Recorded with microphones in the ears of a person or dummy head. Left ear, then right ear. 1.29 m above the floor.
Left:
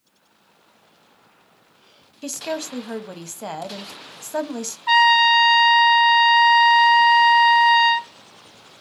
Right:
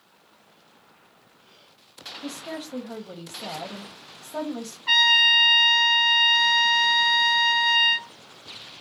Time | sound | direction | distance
2.2 | a woman speaking | 60° left (ahead or behind) | 0.9 m
4.9 | a trumpet | 5° right (ahead or behind) | 2.5 m